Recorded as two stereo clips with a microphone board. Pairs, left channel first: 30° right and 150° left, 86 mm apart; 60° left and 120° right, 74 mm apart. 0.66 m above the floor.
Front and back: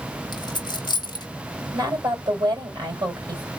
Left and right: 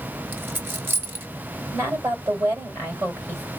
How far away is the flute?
I don't hear a flute.